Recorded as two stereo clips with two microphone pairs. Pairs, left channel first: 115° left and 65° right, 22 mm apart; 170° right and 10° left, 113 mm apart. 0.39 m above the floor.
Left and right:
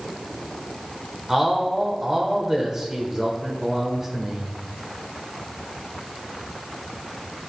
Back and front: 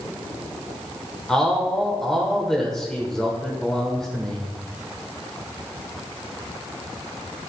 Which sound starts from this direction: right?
A man speaking, at 1.3 s.